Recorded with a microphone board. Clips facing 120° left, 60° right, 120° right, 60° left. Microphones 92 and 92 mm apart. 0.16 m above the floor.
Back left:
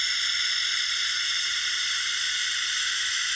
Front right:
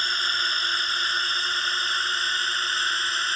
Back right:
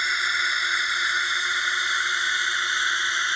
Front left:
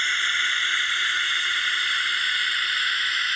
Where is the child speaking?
No child speaking in this recording.